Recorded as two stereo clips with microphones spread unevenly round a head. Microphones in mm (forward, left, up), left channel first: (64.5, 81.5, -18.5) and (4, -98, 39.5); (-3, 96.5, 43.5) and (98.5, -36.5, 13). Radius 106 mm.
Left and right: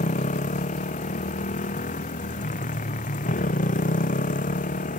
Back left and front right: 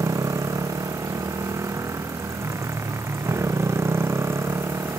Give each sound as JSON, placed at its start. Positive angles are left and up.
{"t": 0.0, "sound": "a motorcycle", "azimuth_deg": 20}